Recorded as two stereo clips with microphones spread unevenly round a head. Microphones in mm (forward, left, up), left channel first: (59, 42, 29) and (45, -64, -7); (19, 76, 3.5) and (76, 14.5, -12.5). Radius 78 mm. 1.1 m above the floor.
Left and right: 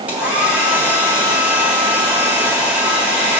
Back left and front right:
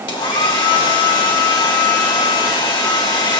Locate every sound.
0.1 s a hair dryer: 170° left, 1.4 m